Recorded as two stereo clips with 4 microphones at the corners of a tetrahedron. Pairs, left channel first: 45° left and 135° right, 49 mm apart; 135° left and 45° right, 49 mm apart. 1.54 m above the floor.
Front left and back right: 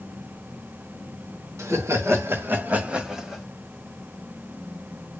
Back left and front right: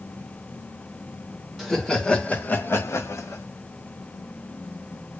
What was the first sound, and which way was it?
Laughter, 140° right.